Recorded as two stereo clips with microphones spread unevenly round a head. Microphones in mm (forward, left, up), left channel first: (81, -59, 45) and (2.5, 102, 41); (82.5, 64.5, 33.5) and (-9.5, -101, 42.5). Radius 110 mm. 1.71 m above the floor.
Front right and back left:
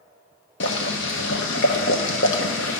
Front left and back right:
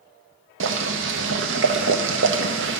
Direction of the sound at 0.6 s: 100° right.